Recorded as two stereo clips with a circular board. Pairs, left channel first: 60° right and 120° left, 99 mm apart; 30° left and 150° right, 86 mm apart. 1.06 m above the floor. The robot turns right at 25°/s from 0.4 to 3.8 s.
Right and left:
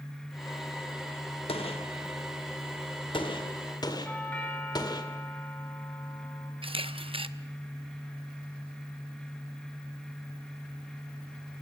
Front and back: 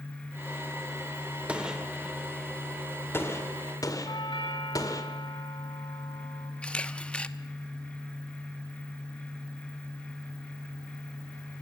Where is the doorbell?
15° left, 2.5 m.